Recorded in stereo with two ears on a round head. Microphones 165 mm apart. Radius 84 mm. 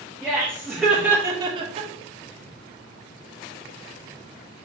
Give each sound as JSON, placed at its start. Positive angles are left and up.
{"t": 0.2, "sound": "laughter", "side_deg": 10, "distance_m": 0.9}